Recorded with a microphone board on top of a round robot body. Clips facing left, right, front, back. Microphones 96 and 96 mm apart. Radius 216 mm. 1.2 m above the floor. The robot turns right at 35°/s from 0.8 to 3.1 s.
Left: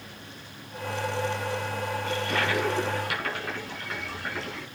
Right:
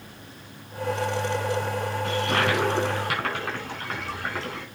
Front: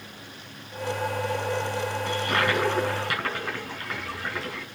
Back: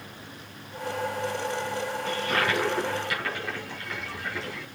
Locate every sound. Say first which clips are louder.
2.0 s a toilet flushing: right 5 dB, front 1 dB; 85° right, 4 m; by 4.7 s 50° right, 4 m